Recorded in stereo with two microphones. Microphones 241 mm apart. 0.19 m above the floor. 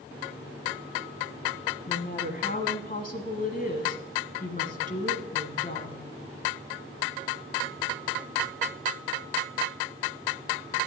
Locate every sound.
1.9 s a woman speaking: 35° left (ahead or behind), 1.3 m